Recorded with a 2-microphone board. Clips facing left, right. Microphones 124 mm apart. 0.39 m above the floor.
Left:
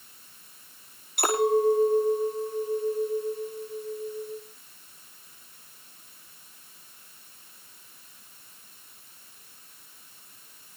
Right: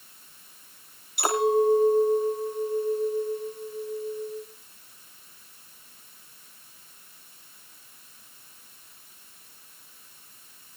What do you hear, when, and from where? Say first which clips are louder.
1.2 s a clink: right 1 dB; 55° left (ahead or behind), 6 m